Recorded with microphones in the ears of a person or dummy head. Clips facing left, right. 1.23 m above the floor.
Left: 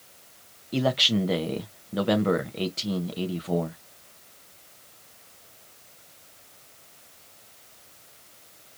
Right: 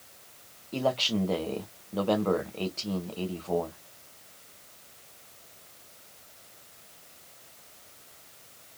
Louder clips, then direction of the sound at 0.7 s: Left 3 dB; 20° left (ahead or behind).